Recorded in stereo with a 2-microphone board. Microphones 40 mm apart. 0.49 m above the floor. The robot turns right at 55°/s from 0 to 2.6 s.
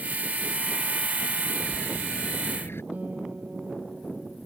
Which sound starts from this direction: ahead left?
A bird, at 1.6 s.